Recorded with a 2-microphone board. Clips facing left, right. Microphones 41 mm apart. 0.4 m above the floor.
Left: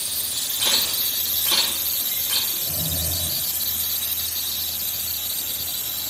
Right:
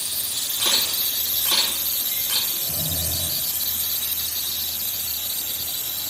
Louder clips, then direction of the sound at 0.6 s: Even; 50° right (ahead or behind).